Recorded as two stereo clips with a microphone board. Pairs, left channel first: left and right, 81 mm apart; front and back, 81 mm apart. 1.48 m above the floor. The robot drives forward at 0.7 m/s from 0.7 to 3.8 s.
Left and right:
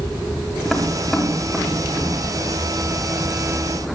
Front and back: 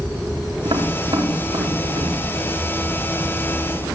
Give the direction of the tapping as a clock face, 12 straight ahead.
6 o'clock.